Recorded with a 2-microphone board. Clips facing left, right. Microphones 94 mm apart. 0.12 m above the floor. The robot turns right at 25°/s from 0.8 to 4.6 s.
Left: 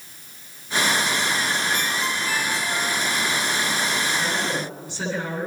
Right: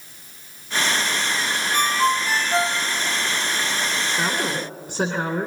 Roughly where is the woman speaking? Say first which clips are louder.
Right 1 dB; right.